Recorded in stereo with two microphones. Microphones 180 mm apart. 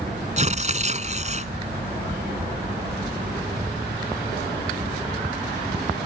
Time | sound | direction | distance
0.4 | tearing paper | 40° right (ahead or behind) | ?